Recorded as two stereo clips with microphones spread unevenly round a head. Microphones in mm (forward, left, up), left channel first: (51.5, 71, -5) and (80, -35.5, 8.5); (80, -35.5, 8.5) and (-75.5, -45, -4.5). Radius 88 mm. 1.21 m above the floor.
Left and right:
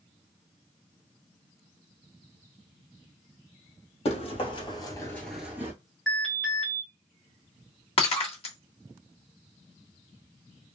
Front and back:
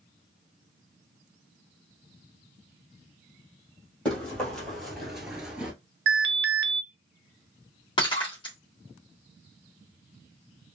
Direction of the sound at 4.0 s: 85° left.